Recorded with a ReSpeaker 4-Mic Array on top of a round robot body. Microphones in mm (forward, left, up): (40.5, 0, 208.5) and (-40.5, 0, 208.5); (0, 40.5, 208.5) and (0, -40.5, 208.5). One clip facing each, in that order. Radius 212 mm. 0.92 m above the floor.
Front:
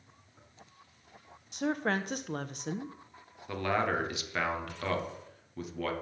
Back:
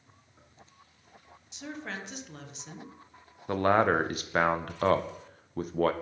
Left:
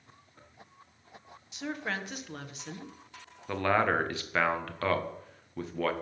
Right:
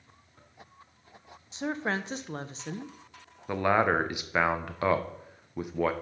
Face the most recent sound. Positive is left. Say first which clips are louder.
# back 6 dB, right 2 dB
turn(degrees=-160)